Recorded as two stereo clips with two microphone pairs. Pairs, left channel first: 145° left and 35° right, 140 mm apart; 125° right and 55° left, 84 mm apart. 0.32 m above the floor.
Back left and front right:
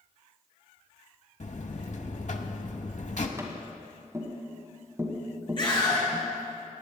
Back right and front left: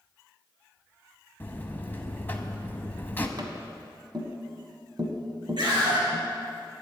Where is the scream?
85° left, 4.5 m.